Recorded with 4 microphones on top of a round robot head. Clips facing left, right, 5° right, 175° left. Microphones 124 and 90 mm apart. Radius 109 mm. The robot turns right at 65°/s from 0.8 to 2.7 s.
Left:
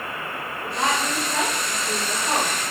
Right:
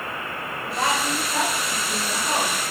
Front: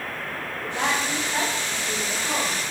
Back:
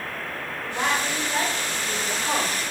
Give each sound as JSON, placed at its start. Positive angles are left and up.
{"t": 0.6, "sound": "a woman speaking", "azimuth_deg": 25, "distance_m": 3.5}